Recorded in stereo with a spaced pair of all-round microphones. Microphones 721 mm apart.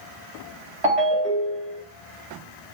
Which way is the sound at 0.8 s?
45° right (ahead or behind).